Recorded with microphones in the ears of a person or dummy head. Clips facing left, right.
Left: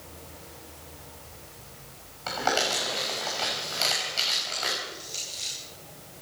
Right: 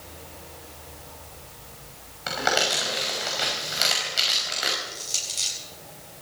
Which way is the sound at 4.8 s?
70° right (ahead or behind).